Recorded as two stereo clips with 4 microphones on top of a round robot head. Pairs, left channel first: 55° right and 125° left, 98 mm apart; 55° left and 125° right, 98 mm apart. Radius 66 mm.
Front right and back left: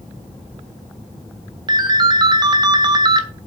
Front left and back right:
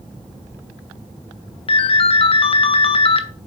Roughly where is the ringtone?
Left.